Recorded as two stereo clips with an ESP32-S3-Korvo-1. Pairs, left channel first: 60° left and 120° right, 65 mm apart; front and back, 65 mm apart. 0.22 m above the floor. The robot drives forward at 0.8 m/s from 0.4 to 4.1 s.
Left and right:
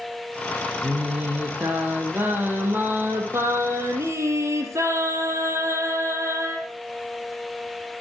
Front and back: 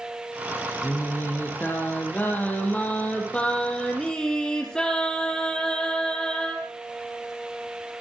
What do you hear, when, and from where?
0.8 s singing: 55° right, 6 m; by 6.7 s 80° right, 5 m